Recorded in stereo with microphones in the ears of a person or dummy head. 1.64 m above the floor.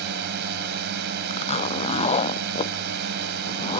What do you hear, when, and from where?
0.0 s a drone: 55° right (ahead or behind)
1.3 s a zipper: 30° left (ahead or behind)